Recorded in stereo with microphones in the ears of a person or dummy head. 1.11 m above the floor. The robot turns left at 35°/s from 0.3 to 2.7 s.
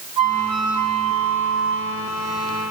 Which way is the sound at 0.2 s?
150° right.